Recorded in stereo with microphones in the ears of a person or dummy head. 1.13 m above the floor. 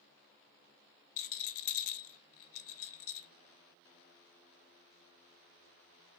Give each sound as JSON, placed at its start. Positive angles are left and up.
{"t": 1.2, "sound": "a rattle", "side_deg": 70, "distance_m": 0.6}